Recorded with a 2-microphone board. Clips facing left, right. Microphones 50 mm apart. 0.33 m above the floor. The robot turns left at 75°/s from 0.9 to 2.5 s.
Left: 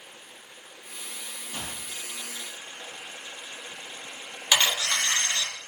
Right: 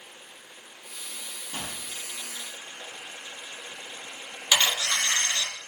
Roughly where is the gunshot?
Ahead.